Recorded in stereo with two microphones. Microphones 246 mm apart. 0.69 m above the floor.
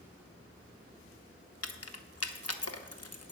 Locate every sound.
1.6 s keys jangling: 75° left (ahead or behind), 0.9 m